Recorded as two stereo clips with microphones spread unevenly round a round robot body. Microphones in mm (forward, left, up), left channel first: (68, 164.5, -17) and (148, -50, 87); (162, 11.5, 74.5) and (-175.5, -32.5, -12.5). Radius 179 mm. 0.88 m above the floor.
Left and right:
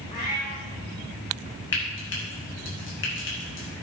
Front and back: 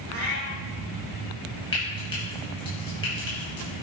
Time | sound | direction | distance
0.1 | a cat meowing | 170° right | 6.5 m
1.7 | frying | 85° left | 7 m